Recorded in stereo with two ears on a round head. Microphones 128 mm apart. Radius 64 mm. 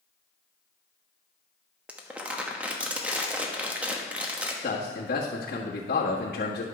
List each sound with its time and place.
1.9 s crumpling: 10° right (ahead or behind), 1.0 m
4.6 s a man speaking: 75° left (ahead or behind), 1.6 m